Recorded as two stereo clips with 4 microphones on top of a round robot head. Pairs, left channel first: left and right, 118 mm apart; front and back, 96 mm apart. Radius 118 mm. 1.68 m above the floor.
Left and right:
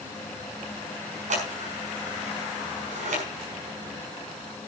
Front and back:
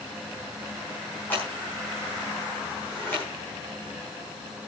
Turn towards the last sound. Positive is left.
turn(degrees=-75)